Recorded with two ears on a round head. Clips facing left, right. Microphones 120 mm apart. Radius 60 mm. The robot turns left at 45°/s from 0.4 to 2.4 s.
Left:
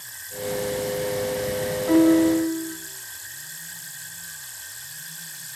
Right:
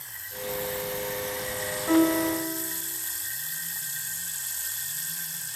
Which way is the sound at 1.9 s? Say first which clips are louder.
Left 6 dB; 10° left (ahead or behind).